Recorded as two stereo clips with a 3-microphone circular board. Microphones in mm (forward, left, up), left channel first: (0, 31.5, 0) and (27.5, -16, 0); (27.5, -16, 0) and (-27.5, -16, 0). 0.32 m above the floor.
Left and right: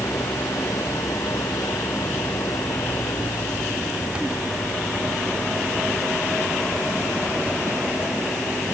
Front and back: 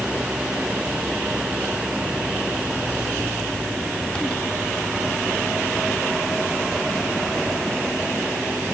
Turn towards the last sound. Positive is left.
turn(degrees=110)